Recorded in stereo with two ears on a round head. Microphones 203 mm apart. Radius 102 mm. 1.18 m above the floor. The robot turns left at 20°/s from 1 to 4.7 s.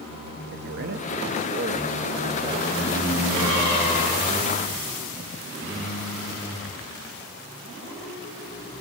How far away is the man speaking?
About 1.3 m.